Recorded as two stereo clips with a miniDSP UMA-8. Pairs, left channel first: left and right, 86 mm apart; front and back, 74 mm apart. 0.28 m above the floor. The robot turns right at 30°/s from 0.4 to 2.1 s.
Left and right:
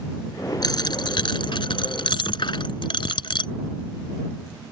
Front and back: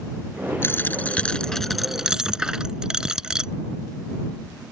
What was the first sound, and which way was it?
A dropped coin, 55° left.